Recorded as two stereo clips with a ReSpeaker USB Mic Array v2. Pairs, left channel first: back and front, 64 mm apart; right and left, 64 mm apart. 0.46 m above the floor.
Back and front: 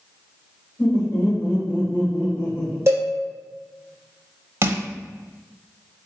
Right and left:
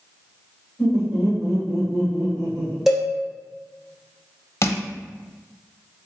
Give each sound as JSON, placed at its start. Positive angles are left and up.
{"t": 0.8, "sound": "laughter", "azimuth_deg": 160, "distance_m": 1.6}
{"t": 2.9, "sound": "a cowbell", "azimuth_deg": 5, "distance_m": 1.2}
{"t": 4.6, "sound": "crushing", "azimuth_deg": -50, "distance_m": 0.6}